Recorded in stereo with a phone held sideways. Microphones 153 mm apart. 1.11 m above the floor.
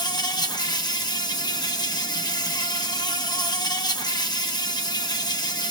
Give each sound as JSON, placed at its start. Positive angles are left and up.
{"t": 0.0, "sound": "an insect", "side_deg": 25, "distance_m": 0.9}